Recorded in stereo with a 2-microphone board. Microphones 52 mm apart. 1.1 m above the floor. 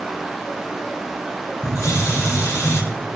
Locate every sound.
1.6 s a hiss: 75° left (ahead or behind), 2.5 m